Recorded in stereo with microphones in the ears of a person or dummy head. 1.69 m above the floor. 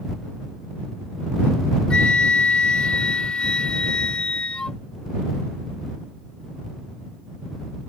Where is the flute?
10° left (ahead or behind).